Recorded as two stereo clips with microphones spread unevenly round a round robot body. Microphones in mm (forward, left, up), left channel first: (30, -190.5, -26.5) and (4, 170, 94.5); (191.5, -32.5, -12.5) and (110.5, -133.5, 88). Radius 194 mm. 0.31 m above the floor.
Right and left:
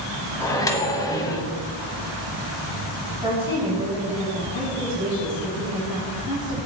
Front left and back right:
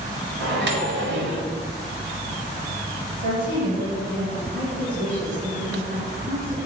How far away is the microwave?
About 1.1 m.